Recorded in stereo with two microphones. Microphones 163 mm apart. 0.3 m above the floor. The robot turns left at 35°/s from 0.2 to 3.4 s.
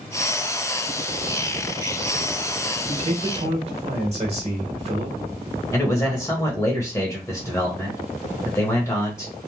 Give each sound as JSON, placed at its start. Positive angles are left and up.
{"t": 2.9, "sound": "a man speaking", "side_deg": -40, "distance_m": 1.1}
{"t": 5.7, "sound": "a man speaking", "side_deg": 20, "distance_m": 1.0}